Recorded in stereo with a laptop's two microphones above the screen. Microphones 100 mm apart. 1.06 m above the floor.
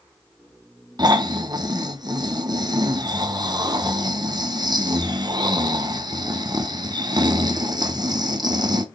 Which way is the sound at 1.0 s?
45° right (ahead or behind).